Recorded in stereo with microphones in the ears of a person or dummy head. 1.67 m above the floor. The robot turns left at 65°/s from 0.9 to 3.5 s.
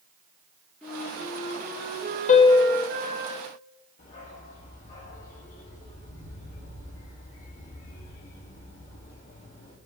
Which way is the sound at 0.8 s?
5° left.